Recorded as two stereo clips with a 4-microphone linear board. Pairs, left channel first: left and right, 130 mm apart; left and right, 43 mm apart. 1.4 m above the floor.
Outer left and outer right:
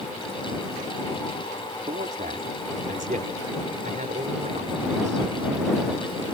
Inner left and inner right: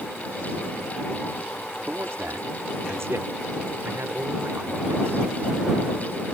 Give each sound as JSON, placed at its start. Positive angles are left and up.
{"t": 1.9, "sound": "a man speaking", "side_deg": -90}